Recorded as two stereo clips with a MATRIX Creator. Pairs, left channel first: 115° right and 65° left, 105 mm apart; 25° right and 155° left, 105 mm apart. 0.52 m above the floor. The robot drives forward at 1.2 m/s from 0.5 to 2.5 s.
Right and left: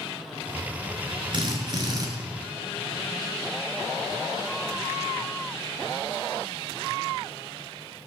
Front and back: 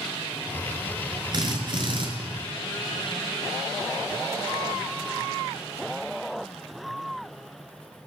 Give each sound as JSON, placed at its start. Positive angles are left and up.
{"t": 1.3, "sound": "a drill", "azimuth_deg": 110, "distance_m": 6.5}